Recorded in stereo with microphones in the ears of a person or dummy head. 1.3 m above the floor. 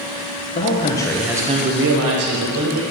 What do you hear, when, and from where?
0.6 s a man speaking: 40° left (ahead or behind), 1.1 m; by 2.8 s 80° right, 1.6 m